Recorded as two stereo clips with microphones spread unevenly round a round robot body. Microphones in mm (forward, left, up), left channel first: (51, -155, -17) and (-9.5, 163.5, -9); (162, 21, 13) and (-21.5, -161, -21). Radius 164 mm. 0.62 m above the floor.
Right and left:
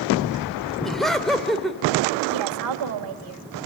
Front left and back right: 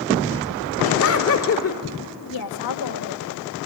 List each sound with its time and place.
0.8 s laughter: 10° left, 2.5 m
2.3 s a woman speaking: 65° left, 3 m